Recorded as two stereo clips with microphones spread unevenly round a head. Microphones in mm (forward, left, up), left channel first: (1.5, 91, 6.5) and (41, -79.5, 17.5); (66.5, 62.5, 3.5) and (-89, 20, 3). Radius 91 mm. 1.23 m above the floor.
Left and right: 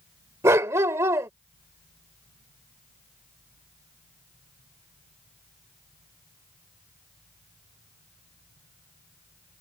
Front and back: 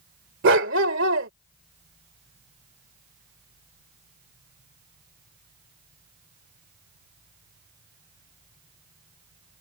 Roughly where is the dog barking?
Behind right.